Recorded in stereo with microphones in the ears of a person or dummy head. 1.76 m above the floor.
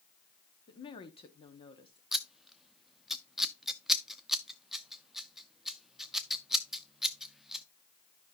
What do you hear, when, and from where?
0.7 s a woman speaking: 25° left (ahead or behind), 0.9 m
2.1 s scissors: 5° right (ahead or behind), 0.6 m